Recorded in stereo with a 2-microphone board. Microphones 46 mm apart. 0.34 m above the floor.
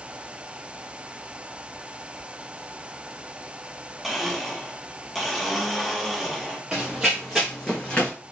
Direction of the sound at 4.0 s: 5° left (ahead or behind).